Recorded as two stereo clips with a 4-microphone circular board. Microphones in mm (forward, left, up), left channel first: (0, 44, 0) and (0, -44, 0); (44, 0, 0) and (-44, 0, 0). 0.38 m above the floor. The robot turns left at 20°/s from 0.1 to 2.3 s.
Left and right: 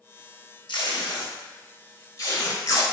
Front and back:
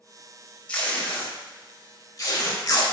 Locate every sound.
0.7 s tape being pulled: 75° left, 0.5 m; by 2.8 s 40° left, 0.5 m